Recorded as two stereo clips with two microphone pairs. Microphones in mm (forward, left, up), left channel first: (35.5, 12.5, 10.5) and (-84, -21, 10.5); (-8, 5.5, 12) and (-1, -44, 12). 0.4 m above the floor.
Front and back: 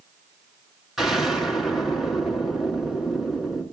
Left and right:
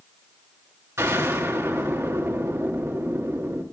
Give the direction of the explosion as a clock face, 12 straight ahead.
3 o'clock.